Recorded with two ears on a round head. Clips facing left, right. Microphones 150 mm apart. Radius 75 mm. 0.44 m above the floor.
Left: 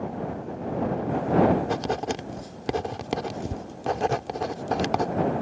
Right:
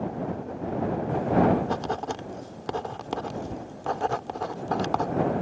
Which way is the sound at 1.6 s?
20° left (ahead or behind).